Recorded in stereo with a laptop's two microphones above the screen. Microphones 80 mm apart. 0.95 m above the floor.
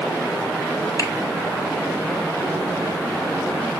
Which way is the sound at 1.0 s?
50° left (ahead or behind).